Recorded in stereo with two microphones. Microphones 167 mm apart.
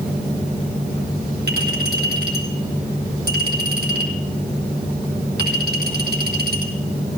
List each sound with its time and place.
1.5 s a clink: 75° right (ahead or behind), 5 m